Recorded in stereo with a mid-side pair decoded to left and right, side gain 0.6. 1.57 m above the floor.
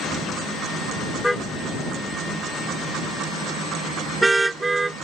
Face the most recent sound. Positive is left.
turn(degrees=-15)